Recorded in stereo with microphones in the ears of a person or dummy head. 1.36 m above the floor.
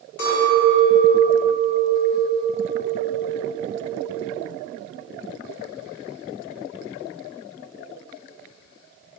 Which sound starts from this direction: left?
A clink, at 0.2 s.